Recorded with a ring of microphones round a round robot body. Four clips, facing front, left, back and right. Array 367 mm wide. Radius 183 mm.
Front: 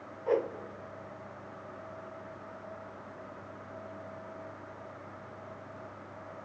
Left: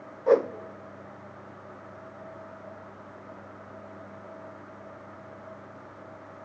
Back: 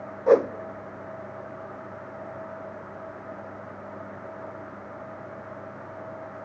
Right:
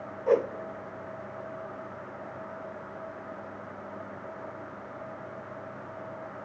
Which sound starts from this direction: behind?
A whoosh, at 0.3 s.